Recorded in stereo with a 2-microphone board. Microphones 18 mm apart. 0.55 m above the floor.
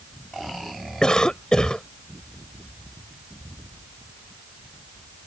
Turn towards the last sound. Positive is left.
turn(degrees=45)  # may be behind; listen again after turning